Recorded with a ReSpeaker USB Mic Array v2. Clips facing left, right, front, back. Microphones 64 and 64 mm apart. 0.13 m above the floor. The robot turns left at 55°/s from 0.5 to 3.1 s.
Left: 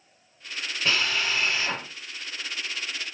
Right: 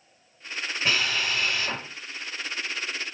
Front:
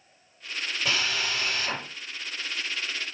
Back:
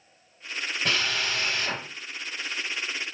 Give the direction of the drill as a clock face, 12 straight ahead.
5 o'clock.